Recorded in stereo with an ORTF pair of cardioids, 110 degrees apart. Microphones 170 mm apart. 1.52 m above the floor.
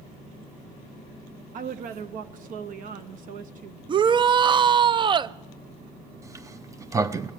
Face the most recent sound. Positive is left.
turn(degrees=-20)